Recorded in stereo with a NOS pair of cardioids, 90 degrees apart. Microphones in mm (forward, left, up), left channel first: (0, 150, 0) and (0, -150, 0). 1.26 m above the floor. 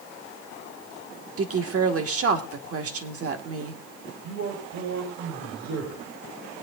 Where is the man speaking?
70° right, 5 m.